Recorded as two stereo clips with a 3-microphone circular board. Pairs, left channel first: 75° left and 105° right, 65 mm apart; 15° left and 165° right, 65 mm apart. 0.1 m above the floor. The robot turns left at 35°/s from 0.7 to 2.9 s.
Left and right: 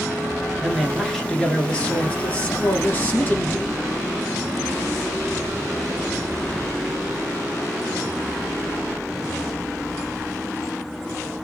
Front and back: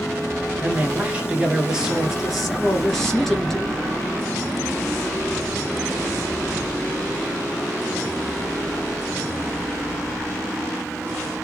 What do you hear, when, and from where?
0.6 s a man speaking: 165° left, 1.5 m; by 3.9 s 90° left, 1.5 m